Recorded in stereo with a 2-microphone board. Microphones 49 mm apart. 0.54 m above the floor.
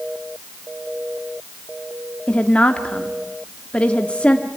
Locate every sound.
2.3 s a woman speaking: 25° left (ahead or behind), 1.2 m